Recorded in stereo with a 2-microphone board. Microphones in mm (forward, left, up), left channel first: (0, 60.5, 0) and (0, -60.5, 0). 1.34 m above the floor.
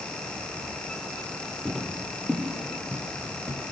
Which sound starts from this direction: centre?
Footsteps, at 1.6 s.